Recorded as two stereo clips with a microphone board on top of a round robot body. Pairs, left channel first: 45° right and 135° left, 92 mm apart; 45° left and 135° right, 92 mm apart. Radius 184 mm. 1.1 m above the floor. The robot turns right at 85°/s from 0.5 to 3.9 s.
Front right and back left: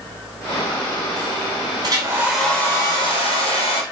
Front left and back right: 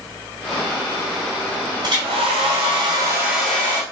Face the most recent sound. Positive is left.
turn(degrees=-5)